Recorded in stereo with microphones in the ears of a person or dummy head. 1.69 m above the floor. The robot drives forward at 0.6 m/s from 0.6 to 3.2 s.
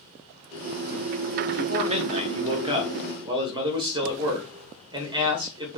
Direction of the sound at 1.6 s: 35° right (ahead or behind).